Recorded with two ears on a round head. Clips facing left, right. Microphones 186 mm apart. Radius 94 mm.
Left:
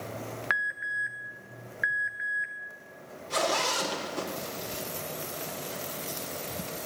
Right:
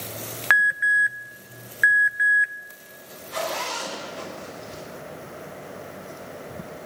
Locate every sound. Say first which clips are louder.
0.5 s an alarm: right 10 dB; 65° right (ahead or behind), 1.0 m
3.3 s a zipper: left 1 dB; 55° left (ahead or behind), 4 m